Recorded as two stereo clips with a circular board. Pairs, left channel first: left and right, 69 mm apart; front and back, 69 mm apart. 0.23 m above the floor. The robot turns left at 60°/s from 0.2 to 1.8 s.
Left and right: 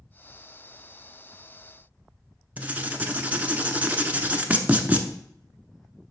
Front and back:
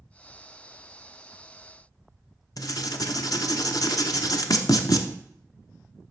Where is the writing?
25° right, 0.7 m.